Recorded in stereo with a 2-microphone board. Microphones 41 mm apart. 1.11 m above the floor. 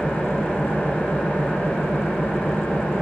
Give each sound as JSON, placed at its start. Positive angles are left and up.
{"t": 0.0, "sound": "an engine running", "side_deg": 55, "distance_m": 4.0}